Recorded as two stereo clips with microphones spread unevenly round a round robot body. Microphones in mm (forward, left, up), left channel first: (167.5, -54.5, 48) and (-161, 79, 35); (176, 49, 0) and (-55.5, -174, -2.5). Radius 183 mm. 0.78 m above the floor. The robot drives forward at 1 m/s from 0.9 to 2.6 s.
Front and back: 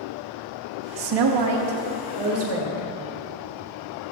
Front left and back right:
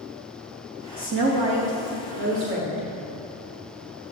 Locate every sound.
1.0 s a woman speaking: 165° left, 0.6 m; by 2.9 s 175° left, 2 m